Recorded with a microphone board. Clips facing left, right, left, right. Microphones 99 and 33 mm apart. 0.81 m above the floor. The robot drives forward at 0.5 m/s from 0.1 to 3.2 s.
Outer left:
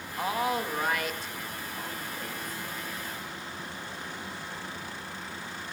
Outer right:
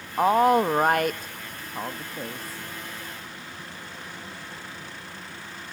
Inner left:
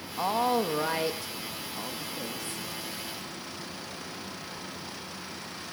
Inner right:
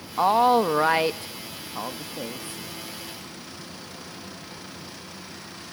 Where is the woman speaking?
45° right (ahead or behind), 0.9 m; by 2.6 s 30° right (ahead or behind), 1.1 m.